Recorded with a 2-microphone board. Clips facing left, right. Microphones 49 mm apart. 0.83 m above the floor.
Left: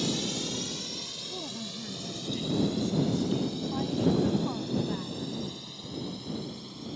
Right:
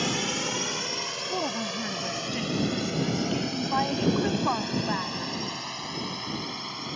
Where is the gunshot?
No gunshot in this recording.